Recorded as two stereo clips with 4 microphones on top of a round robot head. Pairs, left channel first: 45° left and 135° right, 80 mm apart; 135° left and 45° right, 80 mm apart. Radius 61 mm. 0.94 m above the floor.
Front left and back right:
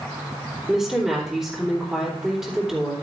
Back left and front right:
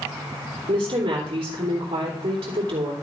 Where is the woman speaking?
50° right, 2.5 m.